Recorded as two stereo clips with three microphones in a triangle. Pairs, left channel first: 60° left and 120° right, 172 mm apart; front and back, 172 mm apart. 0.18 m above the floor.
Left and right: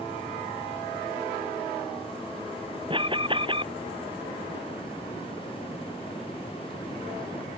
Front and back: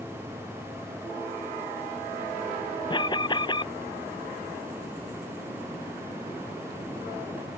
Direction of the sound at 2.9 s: 60° right.